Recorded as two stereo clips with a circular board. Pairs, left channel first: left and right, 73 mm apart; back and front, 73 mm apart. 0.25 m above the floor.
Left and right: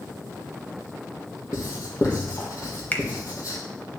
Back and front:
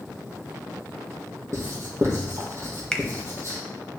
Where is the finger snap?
115° left, 0.8 m.